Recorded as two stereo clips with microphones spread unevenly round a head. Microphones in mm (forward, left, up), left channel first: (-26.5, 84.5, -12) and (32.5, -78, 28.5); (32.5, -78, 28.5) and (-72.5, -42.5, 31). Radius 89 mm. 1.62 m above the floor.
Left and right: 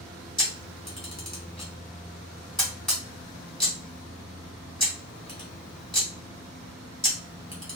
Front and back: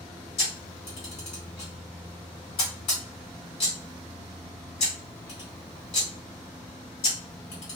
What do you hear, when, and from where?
0.4 s a camera shutter: 10° left, 2.0 m